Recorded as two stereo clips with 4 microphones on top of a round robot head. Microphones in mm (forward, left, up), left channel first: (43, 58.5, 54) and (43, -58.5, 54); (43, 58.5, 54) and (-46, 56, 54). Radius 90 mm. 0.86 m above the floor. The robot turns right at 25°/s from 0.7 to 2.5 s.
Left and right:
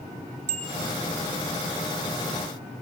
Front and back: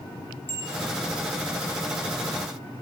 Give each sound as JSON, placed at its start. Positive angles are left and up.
{"t": 0.5, "sound": "a bicycle bell", "azimuth_deg": -75, "distance_m": 3.5}